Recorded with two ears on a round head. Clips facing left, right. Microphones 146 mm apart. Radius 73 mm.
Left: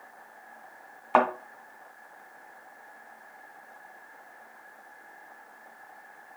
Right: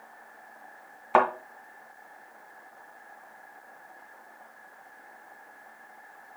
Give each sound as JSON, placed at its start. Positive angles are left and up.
{"t": 1.1, "sound": "a thud", "side_deg": -5, "distance_m": 2.0}